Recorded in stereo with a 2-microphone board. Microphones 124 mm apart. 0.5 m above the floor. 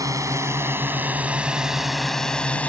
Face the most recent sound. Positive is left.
turn(degrees=10)  # may be behind; listen again after turning